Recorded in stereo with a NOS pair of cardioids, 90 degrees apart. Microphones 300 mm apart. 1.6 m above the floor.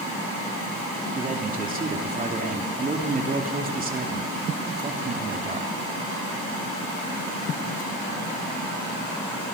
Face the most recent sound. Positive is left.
turn(degrees=-30)